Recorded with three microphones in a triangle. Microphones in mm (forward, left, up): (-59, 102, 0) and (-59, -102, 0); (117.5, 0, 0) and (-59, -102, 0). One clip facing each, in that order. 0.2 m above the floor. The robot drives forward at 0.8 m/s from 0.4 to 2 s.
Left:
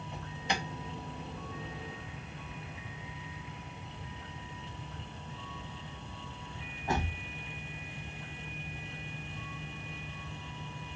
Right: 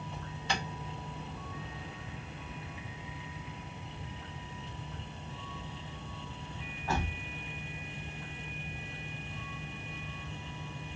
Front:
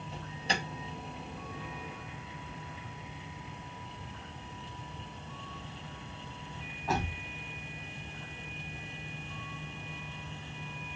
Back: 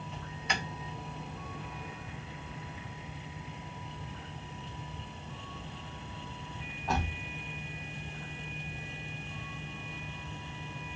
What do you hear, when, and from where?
0.1 s an alarm: 30° left, 2 m; by 7.2 s 115° left, 1.9 m